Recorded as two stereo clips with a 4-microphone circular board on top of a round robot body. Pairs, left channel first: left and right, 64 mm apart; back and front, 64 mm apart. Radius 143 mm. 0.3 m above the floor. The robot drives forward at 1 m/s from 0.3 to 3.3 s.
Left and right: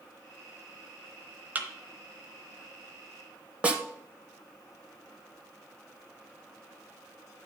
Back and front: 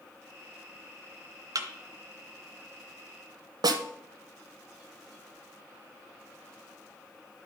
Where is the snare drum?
15° right, 0.6 m.